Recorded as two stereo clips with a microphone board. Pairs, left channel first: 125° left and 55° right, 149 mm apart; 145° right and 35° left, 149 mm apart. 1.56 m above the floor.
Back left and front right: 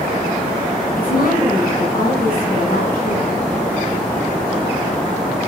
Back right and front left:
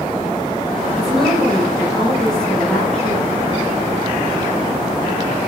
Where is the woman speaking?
125° left, 8.5 m; by 3.5 s 135° left, 7.5 m.